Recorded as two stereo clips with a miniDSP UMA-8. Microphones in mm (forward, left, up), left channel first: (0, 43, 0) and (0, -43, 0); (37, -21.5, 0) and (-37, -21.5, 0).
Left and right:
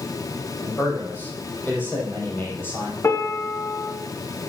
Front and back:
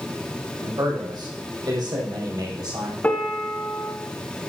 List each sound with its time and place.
0.6 s a man speaking: 155° left, 6 m
3.0 s a piano: 55° left, 1.3 m